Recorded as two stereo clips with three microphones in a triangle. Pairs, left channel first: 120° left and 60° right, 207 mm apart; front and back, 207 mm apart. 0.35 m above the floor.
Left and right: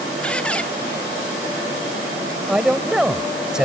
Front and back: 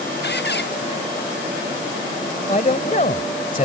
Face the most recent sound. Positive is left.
turn(degrees=25)